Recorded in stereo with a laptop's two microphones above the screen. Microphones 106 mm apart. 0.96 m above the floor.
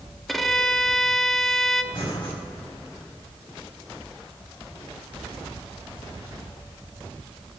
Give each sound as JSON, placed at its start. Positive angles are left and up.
{"t": 0.3, "sound": "a violin", "side_deg": 0, "distance_m": 0.9}
{"t": 1.9, "sound": "breathing", "side_deg": 45, "distance_m": 6.0}